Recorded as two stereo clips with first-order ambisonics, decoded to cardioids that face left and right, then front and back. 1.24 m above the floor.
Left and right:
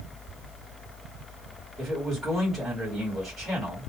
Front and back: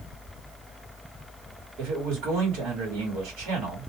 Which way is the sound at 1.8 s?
175° right.